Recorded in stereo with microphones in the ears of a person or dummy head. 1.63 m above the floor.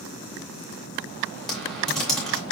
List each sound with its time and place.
1.5 s typing on a keyboard: centre (ahead or behind), 1.2 m